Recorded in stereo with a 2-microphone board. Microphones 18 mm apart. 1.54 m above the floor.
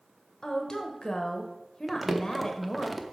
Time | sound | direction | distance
0.4 | a woman speaking | 35° left (ahead or behind) | 0.9 m
1.9 | crumpling | 5° right (ahead or behind) | 0.7 m